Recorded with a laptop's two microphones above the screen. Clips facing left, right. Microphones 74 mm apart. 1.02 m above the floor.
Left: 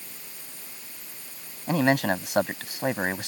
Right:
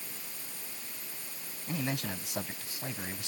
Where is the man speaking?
70° left (ahead or behind).